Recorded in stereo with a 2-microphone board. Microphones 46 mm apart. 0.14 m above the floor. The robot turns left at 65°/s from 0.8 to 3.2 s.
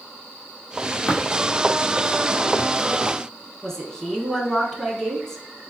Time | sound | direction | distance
1.1 | tapping | 25° left (ahead or behind) | 1.8 m
3.6 | a woman speaking | 15° left (ahead or behind) | 1.2 m